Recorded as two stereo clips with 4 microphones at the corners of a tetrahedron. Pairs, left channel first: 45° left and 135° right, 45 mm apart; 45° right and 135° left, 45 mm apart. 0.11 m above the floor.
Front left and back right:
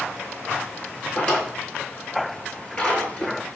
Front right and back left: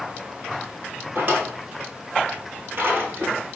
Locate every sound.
1.1 s a drawer: 110° left, 1.1 m